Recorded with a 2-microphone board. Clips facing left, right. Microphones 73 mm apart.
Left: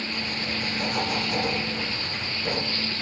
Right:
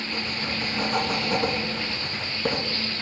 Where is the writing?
35° right (ahead or behind), 1.4 m.